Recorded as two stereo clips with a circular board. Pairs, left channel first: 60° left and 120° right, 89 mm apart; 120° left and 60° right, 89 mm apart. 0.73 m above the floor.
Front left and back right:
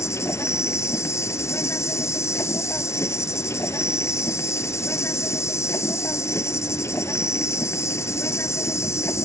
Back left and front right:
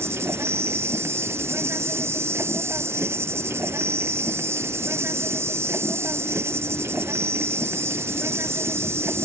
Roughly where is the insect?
Ahead.